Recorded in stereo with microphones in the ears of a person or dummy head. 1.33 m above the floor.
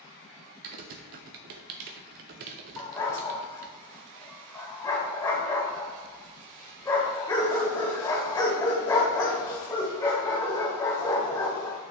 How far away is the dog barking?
About 1.5 m.